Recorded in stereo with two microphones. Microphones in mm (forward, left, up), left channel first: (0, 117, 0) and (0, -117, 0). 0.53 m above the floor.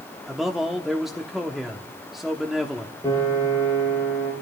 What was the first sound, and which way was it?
A man speaking, centre (ahead or behind).